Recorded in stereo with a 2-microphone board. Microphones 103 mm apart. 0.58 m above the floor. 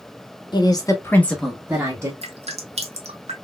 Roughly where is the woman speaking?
Left.